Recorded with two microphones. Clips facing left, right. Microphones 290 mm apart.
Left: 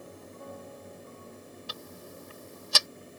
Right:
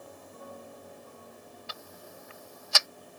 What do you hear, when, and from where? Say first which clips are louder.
1.7 s ticking: left 3 dB; 40° left (ahead or behind)